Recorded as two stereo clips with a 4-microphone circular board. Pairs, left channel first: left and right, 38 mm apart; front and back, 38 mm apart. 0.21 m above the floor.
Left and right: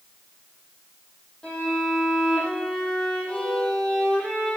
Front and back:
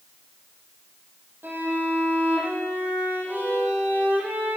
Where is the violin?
155° left, 8.5 m.